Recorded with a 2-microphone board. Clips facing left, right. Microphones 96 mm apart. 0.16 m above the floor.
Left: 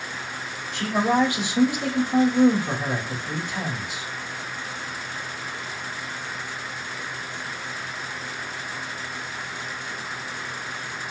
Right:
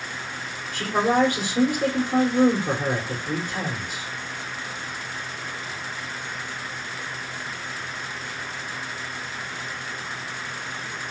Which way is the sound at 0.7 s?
45° right (ahead or behind).